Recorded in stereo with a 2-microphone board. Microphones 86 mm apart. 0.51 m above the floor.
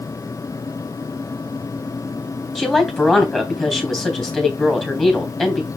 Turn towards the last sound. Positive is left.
turn(degrees=10)  # may be behind; listen again after turning